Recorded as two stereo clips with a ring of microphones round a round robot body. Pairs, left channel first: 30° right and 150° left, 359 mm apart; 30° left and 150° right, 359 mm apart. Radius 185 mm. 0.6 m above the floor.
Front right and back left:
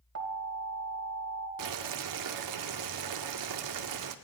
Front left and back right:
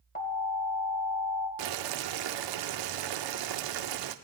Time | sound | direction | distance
0.1 | an alarm | 95° left | 2.5 m
1.6 | boiling | 175° right | 0.8 m